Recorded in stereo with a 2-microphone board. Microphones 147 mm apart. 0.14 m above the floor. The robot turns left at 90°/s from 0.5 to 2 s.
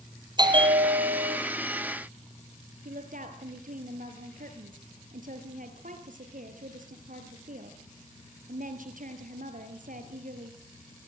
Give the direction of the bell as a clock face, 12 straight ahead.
1 o'clock.